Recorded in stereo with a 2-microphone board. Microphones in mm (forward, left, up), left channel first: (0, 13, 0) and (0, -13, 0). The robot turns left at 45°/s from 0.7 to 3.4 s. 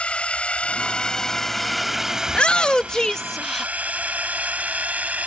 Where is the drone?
40° left (ahead or behind); by 5.3 s 75° right (ahead or behind).